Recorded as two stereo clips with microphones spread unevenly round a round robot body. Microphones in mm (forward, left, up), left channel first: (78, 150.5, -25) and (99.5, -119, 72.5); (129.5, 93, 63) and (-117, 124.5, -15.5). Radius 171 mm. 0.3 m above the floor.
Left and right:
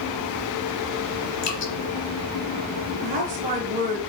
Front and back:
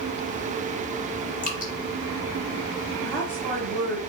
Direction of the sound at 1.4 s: 55° left.